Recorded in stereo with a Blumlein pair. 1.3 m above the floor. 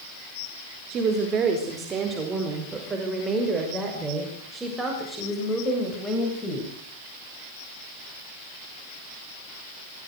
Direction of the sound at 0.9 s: 30° right.